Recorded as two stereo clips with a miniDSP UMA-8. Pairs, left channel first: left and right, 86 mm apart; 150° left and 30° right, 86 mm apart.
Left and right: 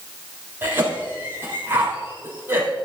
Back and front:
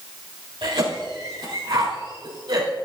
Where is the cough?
25° right, 4 m.